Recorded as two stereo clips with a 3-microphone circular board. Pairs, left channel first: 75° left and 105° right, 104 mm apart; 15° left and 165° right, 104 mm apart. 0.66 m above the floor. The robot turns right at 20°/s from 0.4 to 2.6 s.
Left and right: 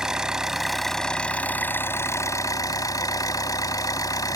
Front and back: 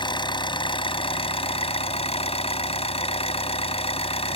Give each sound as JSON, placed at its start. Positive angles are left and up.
{"t": 0.0, "sound": "an engine running", "azimuth_deg": -20}